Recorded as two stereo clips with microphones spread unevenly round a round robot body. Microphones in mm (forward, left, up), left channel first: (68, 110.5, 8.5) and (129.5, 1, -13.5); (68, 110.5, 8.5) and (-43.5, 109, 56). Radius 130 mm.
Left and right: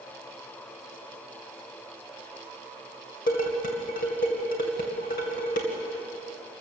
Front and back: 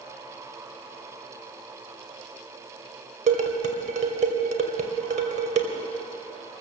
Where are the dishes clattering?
160° left, 2 m.